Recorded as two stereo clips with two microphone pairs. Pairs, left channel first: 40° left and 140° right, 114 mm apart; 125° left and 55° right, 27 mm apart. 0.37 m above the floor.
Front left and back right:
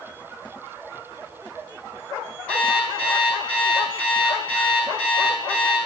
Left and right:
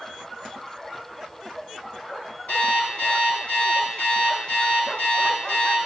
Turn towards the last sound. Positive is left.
turn(degrees=115)